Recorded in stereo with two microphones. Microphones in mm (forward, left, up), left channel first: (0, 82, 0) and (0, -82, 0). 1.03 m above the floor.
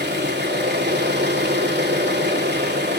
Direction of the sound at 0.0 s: 80° right.